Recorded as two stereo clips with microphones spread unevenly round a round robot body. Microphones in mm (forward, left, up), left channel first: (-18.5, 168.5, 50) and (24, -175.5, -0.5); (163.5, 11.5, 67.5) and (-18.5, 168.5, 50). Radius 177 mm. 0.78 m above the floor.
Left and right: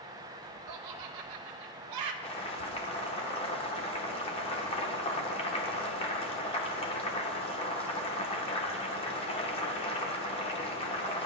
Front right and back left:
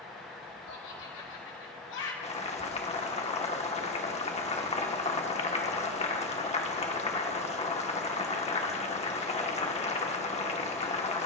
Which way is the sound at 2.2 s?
25° left.